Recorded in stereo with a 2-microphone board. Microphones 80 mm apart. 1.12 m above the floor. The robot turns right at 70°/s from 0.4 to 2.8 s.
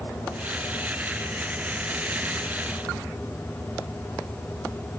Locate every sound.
Only background noise.